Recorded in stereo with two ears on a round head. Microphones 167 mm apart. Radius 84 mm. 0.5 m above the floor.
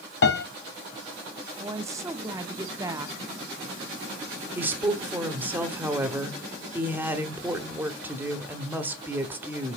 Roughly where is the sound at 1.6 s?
Centre.